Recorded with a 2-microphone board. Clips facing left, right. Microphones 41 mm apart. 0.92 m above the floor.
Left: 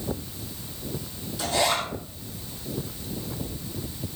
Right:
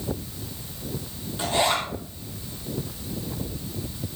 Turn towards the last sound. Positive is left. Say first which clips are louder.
# right 1 dB
turn(degrees=-30)  # may be behind; listen again after turning